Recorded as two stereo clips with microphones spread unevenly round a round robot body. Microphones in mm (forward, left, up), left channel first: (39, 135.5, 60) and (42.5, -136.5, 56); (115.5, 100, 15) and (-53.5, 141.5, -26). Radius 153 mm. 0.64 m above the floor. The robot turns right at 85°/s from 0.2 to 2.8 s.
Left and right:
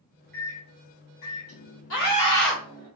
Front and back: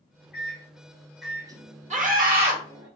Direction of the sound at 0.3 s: 10° left.